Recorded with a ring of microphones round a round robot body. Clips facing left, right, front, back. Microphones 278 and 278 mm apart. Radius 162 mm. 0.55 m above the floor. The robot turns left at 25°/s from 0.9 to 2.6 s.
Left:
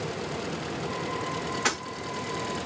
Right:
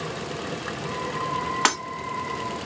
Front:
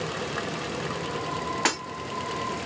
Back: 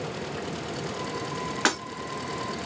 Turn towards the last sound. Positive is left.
turn(degrees=-125)